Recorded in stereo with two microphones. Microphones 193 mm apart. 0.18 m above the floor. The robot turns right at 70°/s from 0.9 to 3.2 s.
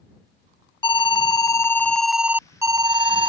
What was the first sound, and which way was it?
An alarm, 20° left (ahead or behind).